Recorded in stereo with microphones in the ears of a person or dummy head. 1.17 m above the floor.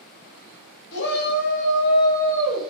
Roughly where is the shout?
Left.